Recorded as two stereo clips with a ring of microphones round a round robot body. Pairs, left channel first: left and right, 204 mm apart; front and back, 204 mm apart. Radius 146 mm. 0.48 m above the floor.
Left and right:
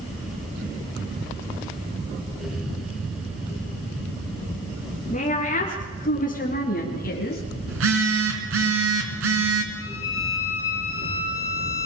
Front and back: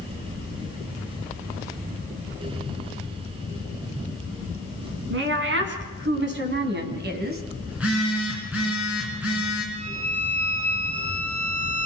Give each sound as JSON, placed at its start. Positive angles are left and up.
{"t": 5.1, "sound": "a woman speaking", "azimuth_deg": 160, "distance_m": 5.0}
{"t": 7.7, "sound": "a phone buzzing", "azimuth_deg": -95, "distance_m": 4.0}
{"t": 9.7, "sound": "a violin", "azimuth_deg": 125, "distance_m": 3.0}